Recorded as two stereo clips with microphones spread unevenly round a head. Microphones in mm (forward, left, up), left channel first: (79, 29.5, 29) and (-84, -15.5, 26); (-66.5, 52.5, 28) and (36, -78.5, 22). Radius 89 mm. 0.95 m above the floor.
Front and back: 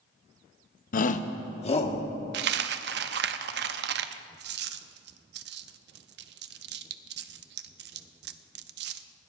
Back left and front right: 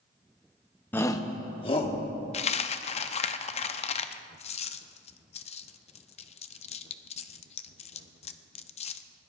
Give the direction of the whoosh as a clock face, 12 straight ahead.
No whoosh in this recording.